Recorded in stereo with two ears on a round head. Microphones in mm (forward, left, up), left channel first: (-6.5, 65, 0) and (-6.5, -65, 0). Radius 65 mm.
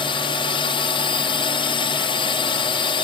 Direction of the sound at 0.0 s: 40° left (ahead or behind).